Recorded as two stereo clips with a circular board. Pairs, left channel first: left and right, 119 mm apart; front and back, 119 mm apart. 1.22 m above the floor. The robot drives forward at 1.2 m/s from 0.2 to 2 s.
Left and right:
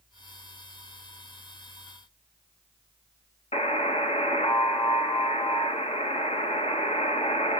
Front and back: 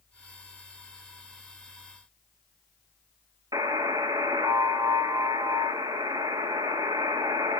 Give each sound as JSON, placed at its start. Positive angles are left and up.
{"t": 3.5, "sound": "a buzzer", "azimuth_deg": 120, "distance_m": 1.2}